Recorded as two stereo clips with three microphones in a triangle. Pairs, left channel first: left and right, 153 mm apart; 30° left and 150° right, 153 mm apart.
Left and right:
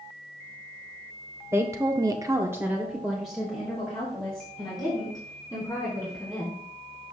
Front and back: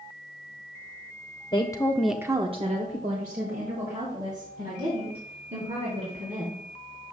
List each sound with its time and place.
1.5 s a woman speaking: 25° right, 1.1 m; by 6.6 s 175° left, 5.5 m